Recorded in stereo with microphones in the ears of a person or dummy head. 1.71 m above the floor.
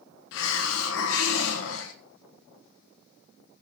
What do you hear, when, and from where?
0.3 s a hiss: 65° left (ahead or behind), 1.3 m